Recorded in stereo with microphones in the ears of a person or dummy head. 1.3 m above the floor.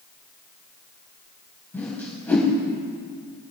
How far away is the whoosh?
About 3 m.